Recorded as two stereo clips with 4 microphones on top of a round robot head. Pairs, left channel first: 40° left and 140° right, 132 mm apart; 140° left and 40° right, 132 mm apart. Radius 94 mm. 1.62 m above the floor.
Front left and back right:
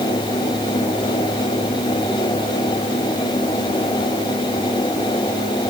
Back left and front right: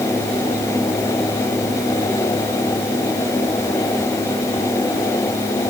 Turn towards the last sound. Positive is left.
No sound to turn to.